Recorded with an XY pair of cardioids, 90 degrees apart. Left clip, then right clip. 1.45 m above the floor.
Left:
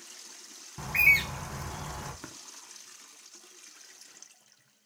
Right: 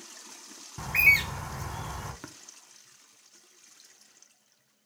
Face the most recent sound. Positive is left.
turn(degrees=-5)